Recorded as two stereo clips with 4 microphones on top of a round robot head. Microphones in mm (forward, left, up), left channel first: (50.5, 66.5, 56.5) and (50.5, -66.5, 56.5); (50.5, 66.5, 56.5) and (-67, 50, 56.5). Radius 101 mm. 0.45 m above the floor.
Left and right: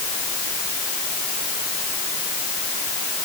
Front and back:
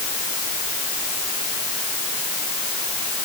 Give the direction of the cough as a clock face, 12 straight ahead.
I don't hear a cough.